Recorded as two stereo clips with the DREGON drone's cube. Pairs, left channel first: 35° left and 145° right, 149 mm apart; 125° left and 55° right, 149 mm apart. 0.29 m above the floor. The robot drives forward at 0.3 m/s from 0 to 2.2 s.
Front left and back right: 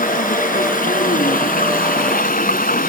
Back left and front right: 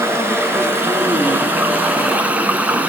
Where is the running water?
15° left, 2.5 m; by 2.9 s 25° left, 1.8 m.